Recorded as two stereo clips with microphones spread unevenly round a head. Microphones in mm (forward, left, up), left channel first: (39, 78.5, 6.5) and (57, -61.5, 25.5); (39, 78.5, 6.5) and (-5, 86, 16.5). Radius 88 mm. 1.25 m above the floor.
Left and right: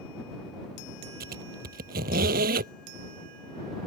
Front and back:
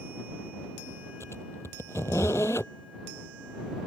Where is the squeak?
85° right.